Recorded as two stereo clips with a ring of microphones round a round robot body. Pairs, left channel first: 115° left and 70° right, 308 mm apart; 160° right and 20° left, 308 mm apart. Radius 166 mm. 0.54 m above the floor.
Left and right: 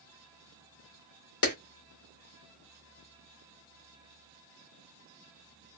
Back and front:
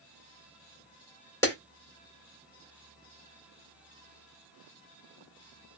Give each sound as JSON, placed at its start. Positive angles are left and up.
{"t": 1.4, "sound": "a clap", "azimuth_deg": 125, "distance_m": 1.9}